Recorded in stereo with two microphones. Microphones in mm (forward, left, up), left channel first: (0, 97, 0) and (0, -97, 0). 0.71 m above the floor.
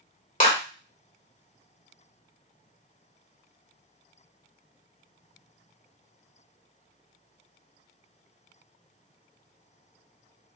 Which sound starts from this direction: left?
A clap, at 0.4 s.